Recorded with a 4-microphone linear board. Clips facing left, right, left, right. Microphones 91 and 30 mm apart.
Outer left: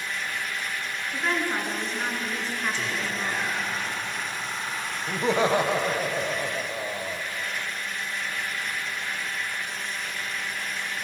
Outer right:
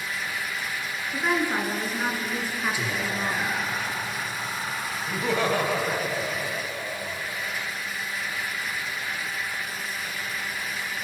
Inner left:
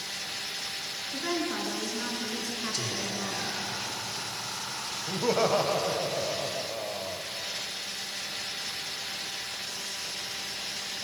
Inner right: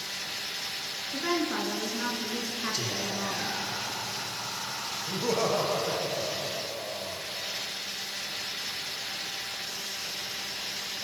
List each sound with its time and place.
1.1 s a woman speaking: 10° right (ahead or behind), 3 m
2.7 s whispering: 10° right (ahead or behind), 3.5 m
5.1 s laughter: 25° left (ahead or behind), 1.3 m